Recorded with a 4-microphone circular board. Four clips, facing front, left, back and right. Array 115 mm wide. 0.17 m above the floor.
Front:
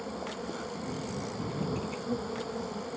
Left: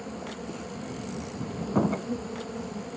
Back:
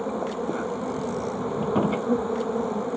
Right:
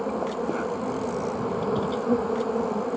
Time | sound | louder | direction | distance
0.0 | an insect | right 10 dB, back 10 dB | 125° right | ?
1.6 | a door slam | left 3 dB, back 14 dB | 145° left | ?